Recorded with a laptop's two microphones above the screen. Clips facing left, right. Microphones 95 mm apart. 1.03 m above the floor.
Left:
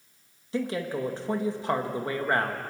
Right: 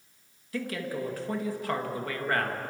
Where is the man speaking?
25° left (ahead or behind), 1.5 m.